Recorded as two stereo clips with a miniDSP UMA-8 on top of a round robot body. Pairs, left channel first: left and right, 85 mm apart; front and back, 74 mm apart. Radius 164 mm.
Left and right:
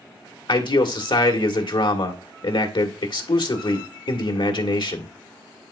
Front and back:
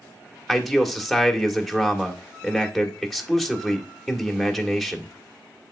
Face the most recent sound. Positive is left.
turn(degrees=90)